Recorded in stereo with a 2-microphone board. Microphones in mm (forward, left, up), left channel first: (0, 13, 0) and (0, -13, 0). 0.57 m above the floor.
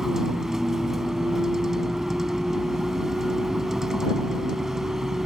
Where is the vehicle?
15° right (ahead or behind).